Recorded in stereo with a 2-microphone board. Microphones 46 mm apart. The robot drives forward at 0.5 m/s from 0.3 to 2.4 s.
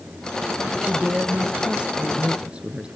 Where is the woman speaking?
30° right (ahead or behind), 1.2 m; by 2.9 s 25° right (ahead or behind), 1.5 m.